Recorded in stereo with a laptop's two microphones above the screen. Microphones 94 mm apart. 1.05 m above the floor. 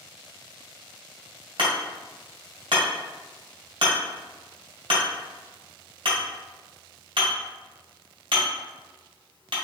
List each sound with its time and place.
1.6 s hammering: 65° right (ahead or behind), 1.7 m